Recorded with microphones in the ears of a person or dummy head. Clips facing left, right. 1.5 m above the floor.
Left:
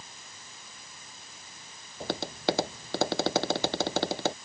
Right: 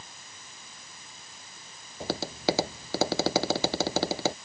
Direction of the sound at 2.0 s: Centre (ahead or behind).